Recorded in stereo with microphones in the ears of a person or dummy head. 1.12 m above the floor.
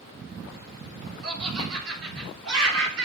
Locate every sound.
1.2 s laughter: 80° right, 4 m; by 3.1 s 65° right (ahead or behind), 3.5 m